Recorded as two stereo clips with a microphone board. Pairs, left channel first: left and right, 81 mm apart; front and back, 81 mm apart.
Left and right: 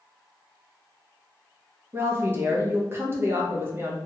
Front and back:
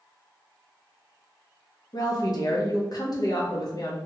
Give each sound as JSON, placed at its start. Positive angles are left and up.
{"t": 1.9, "sound": "a woman speaking", "azimuth_deg": -30, "distance_m": 0.9}